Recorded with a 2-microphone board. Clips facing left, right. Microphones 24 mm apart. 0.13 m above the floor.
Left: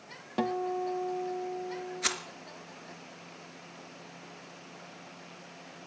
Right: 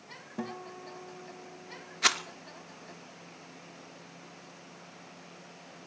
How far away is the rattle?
About 0.7 m.